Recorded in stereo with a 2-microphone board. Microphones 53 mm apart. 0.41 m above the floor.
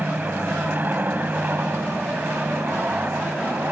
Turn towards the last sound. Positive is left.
turn(degrees=-40)  # may be behind; listen again after turning